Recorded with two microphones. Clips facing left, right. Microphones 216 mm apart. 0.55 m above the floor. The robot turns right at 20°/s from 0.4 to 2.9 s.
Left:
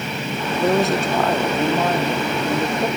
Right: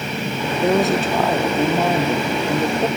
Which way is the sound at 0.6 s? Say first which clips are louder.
Right 1 dB; centre (ahead or behind).